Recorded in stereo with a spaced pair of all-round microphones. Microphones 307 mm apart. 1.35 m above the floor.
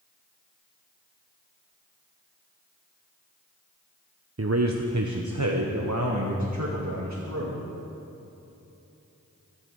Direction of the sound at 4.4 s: 50° right (ahead or behind).